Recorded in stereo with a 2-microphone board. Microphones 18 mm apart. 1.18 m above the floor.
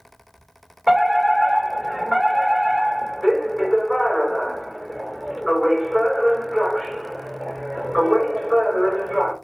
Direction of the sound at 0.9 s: 20° left (ahead or behind).